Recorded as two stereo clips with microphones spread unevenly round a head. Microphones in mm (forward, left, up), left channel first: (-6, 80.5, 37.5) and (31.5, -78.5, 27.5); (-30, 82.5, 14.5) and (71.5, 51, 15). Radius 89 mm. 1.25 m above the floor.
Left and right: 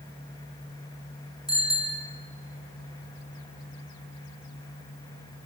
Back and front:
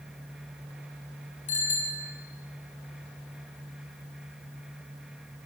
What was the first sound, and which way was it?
A bicycle bell, 170° left.